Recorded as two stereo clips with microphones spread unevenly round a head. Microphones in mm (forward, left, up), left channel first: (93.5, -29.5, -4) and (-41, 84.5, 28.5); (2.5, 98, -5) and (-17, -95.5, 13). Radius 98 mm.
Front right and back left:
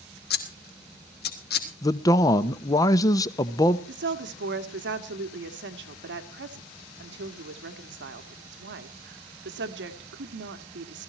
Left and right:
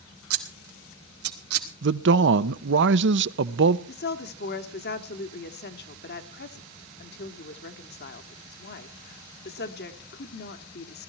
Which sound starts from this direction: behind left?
A woman speaking, at 3.9 s.